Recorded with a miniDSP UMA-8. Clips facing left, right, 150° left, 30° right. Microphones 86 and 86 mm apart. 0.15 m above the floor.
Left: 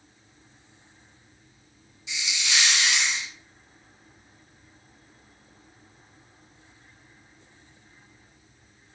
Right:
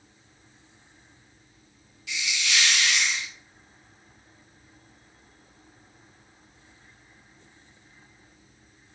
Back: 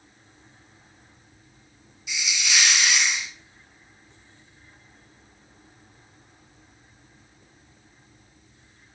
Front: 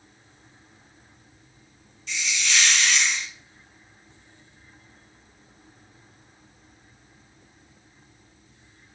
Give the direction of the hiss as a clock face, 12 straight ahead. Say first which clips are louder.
Right 1 dB, front 1 dB; 9 o'clock.